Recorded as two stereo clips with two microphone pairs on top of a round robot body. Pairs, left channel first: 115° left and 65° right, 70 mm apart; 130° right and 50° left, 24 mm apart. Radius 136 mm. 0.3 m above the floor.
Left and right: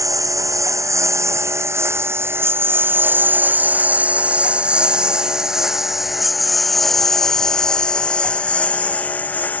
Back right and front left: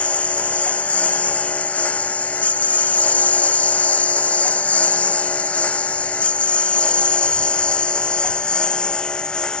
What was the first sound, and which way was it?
A lawn mower, 110° right.